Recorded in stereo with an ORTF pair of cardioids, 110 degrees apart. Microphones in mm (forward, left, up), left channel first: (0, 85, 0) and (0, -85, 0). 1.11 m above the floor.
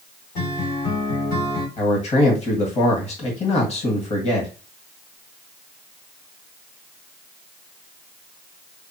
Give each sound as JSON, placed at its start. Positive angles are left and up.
{"t": 0.3, "sound": "a guitar", "azimuth_deg": 65, "distance_m": 3.0}
{"t": 1.8, "sound": "a man speaking", "azimuth_deg": 40, "distance_m": 1.7}